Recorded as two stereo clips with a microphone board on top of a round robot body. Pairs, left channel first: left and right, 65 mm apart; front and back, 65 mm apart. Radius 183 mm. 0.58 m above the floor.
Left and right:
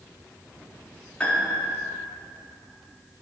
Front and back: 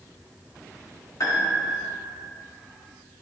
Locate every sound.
1.2 s a piano: 20° left, 1.8 m